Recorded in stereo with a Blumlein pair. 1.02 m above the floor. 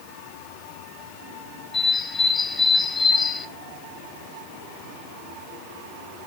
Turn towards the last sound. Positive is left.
turn(degrees=10)